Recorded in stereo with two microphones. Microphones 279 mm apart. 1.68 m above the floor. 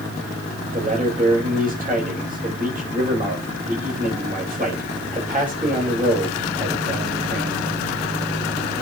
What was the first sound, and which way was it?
A man speaking, 30° right (ahead or behind).